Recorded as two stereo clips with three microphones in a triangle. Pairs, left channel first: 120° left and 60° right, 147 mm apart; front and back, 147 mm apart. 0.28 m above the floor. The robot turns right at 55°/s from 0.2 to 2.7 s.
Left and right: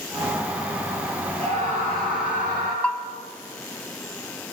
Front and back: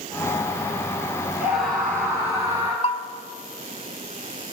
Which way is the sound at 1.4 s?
105° right.